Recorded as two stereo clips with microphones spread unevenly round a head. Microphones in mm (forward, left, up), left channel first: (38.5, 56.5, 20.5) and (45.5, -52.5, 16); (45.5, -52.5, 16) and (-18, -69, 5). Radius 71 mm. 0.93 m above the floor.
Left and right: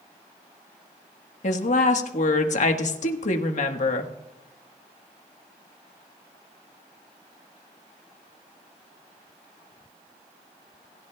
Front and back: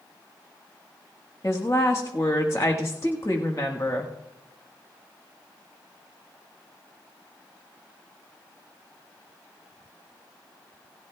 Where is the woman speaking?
85° left, 1.3 m.